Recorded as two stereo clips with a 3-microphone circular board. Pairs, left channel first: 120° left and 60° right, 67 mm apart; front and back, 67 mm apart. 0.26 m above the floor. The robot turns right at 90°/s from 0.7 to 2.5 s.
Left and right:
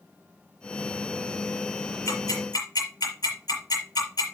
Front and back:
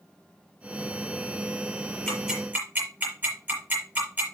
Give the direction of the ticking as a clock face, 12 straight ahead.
9 o'clock.